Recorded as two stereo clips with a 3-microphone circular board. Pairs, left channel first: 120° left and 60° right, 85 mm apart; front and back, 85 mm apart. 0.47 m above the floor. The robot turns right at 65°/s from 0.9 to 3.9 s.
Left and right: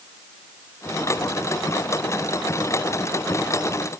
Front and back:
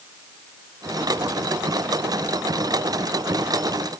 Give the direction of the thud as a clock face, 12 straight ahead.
I don't hear a thud.